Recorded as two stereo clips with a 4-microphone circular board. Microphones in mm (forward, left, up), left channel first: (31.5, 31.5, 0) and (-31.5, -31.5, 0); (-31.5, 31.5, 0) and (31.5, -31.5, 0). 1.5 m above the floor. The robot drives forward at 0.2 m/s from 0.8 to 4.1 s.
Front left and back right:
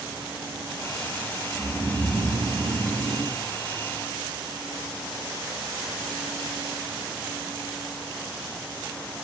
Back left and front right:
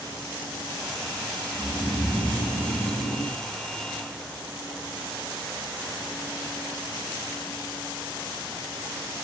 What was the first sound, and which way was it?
Snoring, 125° right.